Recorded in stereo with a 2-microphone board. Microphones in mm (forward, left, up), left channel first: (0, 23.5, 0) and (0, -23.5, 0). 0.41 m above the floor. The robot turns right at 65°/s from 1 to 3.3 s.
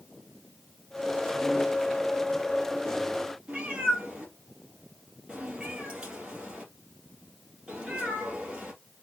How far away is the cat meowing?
About 2.5 m.